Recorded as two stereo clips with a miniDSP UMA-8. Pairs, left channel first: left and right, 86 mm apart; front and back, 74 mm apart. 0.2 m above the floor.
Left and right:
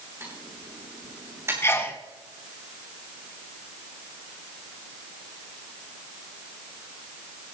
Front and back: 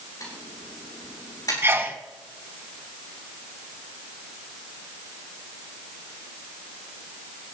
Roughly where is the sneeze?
Behind left.